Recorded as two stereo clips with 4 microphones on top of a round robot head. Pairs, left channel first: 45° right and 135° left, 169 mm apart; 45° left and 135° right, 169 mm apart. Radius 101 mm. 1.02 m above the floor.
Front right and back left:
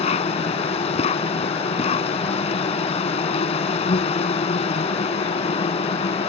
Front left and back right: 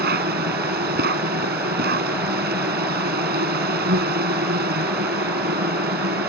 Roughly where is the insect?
Right.